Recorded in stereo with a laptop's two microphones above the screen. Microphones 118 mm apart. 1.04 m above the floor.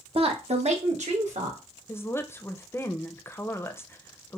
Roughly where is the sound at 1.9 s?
Centre.